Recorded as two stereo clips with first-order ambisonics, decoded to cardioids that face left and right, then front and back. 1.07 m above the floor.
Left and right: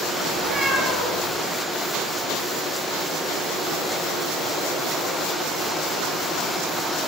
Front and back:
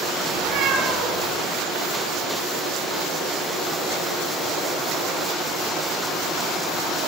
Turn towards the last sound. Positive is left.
turn(degrees=-165)